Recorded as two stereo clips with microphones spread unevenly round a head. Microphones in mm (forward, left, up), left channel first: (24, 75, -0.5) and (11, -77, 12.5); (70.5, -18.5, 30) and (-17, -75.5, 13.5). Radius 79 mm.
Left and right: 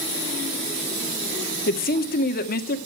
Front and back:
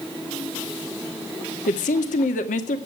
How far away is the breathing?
I don't hear breathing.